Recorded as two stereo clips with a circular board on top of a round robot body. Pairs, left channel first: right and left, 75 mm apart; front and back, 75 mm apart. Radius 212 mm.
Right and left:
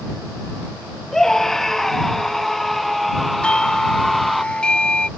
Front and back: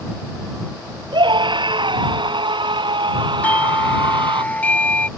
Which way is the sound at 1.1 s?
175° right.